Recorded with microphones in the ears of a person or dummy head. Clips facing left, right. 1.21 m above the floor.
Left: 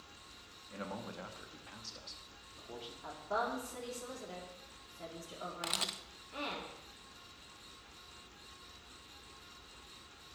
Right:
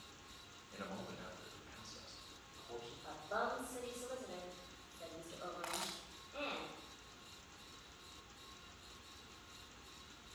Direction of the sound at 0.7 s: 55° left (ahead or behind).